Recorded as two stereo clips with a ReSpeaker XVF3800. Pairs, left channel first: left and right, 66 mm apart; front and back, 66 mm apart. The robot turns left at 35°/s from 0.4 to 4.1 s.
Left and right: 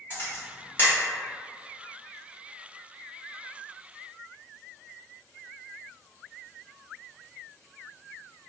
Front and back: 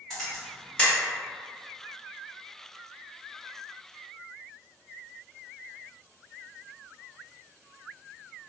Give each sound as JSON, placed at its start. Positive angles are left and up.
{"t": 0.1, "sound": "a camera shutter", "azimuth_deg": 80, "distance_m": 1.5}